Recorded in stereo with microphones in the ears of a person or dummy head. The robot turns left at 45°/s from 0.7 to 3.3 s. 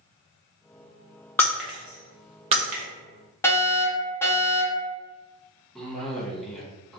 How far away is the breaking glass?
About 0.7 m.